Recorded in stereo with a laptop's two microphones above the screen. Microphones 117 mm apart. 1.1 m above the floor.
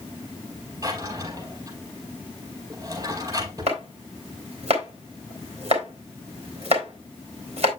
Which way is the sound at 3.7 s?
60° right (ahead or behind).